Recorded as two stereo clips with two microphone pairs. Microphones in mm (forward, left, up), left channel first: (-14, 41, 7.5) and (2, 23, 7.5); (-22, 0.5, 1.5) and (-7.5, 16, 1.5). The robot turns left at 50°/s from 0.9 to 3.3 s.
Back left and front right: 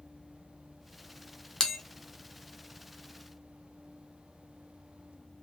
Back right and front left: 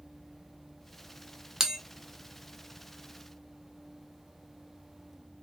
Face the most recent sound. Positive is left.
turn(degrees=5)